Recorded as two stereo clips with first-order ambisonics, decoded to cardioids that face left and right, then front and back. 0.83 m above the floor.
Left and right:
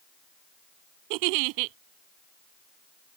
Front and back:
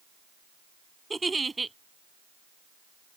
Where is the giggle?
100° right.